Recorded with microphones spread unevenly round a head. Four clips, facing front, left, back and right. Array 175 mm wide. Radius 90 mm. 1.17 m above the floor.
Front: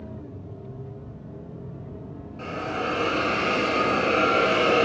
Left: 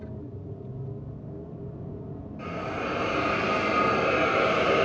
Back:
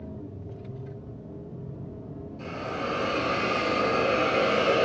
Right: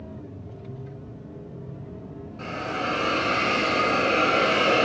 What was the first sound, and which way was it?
A hiss, 35° right.